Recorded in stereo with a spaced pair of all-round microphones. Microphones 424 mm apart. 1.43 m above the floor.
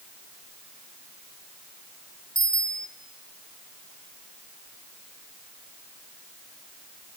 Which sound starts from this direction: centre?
A bicycle bell, at 2.4 s.